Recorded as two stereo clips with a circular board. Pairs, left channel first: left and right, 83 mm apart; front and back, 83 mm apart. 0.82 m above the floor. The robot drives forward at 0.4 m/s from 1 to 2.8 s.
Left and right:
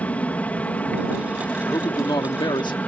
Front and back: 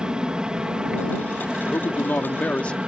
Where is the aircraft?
120° left; by 2.9 s 125° left.